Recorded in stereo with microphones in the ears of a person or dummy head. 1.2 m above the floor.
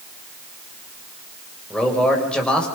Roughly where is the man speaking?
Centre.